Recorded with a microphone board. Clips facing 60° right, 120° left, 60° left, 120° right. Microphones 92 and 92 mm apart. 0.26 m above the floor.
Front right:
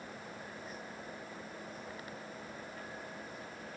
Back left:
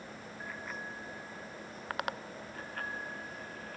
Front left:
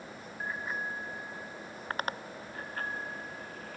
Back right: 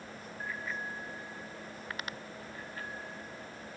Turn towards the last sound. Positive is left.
turn(degrees=85)